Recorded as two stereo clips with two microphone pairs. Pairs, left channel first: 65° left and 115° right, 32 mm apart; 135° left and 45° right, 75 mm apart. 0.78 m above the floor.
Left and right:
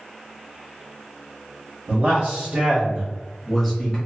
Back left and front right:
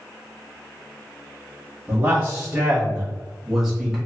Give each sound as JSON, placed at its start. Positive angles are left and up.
{"t": 1.9, "sound": "a man speaking", "azimuth_deg": -110, "distance_m": 1.2}